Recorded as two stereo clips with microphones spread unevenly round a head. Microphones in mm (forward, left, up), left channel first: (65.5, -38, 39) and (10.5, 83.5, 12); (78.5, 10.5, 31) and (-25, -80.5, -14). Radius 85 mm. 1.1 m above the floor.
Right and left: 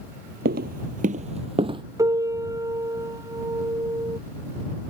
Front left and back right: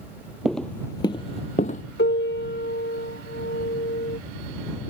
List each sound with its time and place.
0.5 s footsteps: 120° left; by 1.8 s 60° left
2.0 s a piano: 50° left